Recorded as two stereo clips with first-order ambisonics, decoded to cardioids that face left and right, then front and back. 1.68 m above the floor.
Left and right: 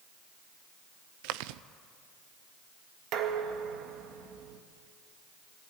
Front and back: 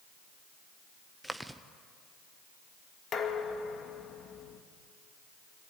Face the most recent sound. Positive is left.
turn(degrees=-55)